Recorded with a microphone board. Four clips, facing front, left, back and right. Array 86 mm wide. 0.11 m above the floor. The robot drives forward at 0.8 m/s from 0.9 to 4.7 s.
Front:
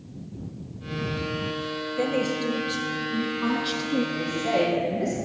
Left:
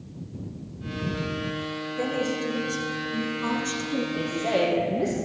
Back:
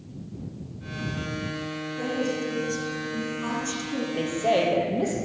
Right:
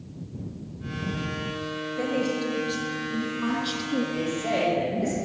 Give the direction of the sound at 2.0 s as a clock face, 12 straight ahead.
12 o'clock.